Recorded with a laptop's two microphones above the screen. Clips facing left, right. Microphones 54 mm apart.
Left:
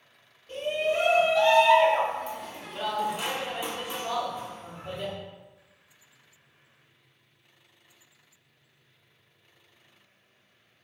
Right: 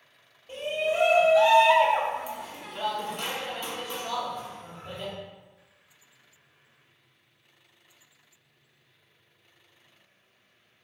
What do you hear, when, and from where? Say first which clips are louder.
0.5 s a shout: left 1 dB; 20° right (ahead or behind), 1.9 m; by 5.1 s 30° left (ahead or behind), 1.2 m